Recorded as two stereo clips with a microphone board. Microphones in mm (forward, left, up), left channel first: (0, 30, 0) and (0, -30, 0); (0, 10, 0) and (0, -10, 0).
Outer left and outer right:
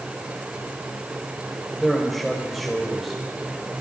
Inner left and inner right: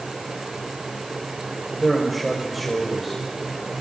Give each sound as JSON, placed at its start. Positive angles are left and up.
{"t": 1.8, "sound": "a man speaking", "side_deg": -5, "distance_m": 4.0}